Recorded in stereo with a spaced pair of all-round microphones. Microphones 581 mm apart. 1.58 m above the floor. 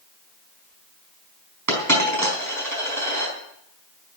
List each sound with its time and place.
1.7 s a dropped coin: 30° right (ahead or behind), 4 m